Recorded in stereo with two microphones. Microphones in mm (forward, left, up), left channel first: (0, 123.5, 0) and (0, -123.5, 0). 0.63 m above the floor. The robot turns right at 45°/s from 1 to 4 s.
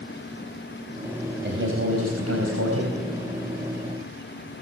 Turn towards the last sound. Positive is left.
turn(degrees=-20)